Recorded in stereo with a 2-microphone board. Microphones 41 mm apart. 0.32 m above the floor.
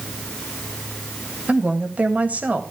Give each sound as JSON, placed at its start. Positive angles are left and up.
{"t": 1.5, "sound": "a woman speaking", "side_deg": -40, "distance_m": 1.9}